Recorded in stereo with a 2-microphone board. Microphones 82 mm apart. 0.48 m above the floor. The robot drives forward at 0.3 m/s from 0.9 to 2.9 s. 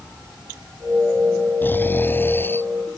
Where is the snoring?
25° left (ahead or behind).